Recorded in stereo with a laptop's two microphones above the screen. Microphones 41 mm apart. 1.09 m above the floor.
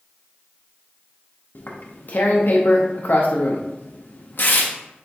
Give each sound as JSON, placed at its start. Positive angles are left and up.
{"t": 1.6, "sound": "tearing paper", "side_deg": 55, "distance_m": 0.5}